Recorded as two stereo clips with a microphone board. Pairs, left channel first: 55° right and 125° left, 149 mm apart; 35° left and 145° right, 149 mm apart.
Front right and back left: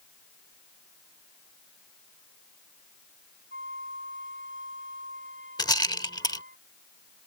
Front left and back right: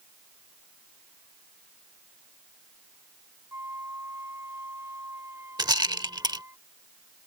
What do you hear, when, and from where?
3.5 s a flute: 140° left
5.6 s a rattle: 100° right